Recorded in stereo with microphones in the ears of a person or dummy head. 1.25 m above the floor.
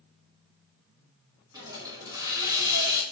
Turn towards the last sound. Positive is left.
turn(degrees=-20)  # may be behind; listen again after turning